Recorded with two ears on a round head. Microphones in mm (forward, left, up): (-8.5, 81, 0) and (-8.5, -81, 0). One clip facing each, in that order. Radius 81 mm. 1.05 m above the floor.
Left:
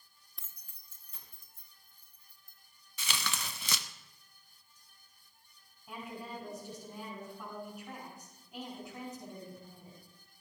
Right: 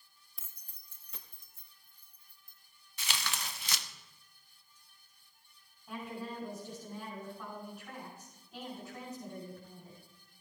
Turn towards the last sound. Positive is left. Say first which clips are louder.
# right 2 dB
turn(degrees=10)  # may be behind; listen again after turning